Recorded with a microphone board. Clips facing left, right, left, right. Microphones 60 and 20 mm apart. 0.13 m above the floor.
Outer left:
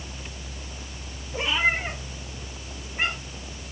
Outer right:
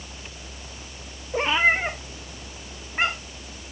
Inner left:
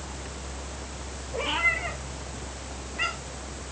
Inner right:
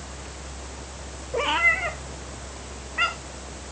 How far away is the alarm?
I don't hear an alarm.